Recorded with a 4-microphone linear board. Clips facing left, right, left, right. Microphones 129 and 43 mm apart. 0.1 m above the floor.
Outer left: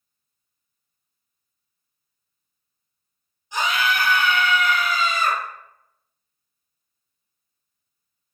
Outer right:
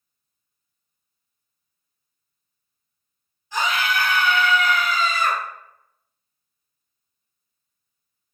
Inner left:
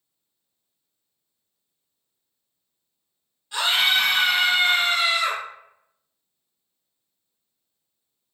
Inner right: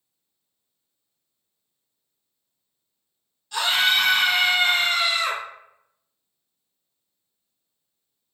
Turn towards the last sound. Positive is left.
turn(degrees=20)  # may be behind; listen again after turning